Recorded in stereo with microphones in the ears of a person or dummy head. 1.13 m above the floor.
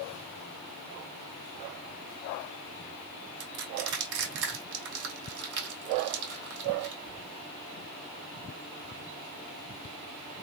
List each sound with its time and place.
3.4 s crushing: 65° right (ahead or behind), 2 m